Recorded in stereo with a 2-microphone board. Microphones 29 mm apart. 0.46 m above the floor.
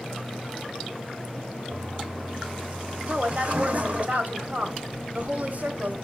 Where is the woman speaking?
55° right (ahead or behind), 1.7 m.